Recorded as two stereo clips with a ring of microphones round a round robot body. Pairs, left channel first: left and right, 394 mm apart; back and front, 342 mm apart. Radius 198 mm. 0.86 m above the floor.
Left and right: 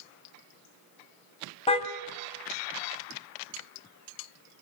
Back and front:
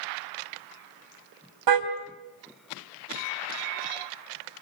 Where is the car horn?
15° left, 2.5 m.